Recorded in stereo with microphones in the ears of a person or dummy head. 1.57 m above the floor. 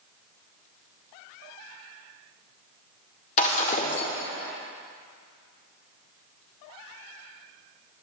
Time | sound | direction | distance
3.4 | breaking glass | 35° left (ahead or behind) | 1.7 m